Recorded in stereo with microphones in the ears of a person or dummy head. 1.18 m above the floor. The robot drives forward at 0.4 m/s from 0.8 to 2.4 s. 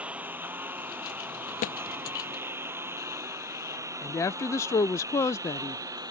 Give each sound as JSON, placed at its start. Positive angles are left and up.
{"t": 0.0, "sound": "a lawn mower", "side_deg": -10}
{"t": 1.6, "sound": "a thud", "side_deg": 45}
{"t": 4.0, "sound": "a woman speaking", "side_deg": 20}